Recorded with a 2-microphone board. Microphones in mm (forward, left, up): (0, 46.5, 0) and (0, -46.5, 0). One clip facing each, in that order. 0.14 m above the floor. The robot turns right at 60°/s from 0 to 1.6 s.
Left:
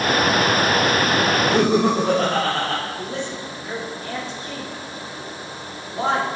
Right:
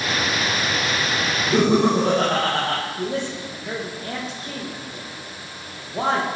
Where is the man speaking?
40° right (ahead or behind), 4 m.